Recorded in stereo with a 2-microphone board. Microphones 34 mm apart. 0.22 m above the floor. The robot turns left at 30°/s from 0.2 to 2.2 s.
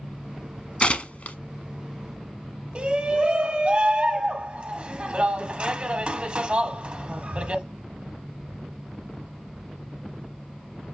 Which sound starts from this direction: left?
Tearing paper, at 0.8 s.